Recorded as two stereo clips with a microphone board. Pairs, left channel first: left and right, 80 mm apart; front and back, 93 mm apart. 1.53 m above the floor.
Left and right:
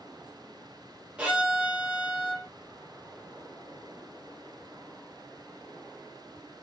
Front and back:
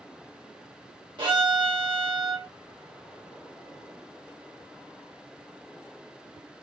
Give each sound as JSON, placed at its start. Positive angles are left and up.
{"t": 1.2, "sound": "a violin", "azimuth_deg": -165, "distance_m": 1.1}